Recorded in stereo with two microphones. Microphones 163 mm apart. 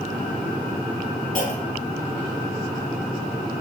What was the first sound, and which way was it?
A clunk, 55° left (ahead or behind).